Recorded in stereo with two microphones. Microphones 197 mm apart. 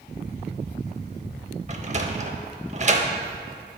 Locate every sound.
1.7 s a sliding door: 40° right (ahead or behind), 0.6 m